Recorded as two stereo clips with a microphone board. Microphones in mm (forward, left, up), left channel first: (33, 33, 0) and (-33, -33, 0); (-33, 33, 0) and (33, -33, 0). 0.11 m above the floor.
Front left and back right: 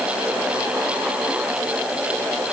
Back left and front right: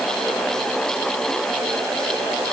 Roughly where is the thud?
No thud in this recording.